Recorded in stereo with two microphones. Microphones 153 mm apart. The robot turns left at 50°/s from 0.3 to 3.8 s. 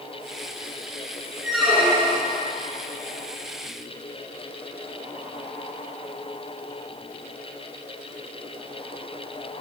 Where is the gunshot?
No gunshot in this recording.